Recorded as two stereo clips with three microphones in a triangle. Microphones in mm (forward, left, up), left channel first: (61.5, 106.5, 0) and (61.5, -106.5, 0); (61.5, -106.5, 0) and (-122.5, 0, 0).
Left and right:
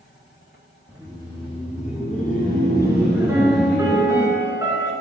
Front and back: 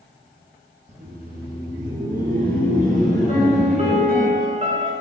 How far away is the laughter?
About 1.3 m.